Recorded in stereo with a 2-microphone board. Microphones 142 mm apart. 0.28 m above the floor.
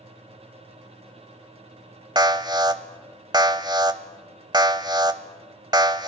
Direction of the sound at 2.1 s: 30° right (ahead or behind).